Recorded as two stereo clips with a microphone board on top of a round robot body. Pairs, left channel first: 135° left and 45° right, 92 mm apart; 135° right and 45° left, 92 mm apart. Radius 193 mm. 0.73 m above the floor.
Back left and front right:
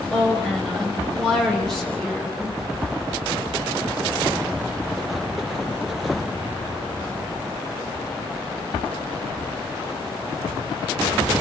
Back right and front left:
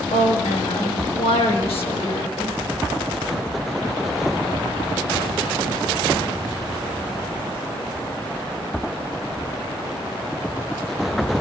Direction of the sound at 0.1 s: 140° right.